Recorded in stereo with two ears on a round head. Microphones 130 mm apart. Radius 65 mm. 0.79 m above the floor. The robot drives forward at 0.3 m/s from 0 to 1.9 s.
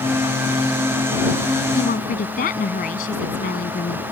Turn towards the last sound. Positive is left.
turn(degrees=60)  # may be behind; listen again after turning